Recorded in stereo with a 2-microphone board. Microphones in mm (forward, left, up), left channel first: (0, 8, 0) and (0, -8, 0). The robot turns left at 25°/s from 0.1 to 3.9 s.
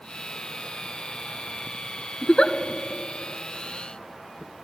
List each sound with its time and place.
2.2 s a giggle: 75° left (ahead or behind), 0.5 m